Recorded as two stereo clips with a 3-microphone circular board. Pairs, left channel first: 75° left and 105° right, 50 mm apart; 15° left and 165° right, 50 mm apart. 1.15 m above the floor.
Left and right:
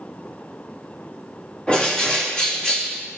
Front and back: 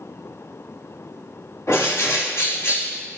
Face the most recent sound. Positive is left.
turn(degrees=10)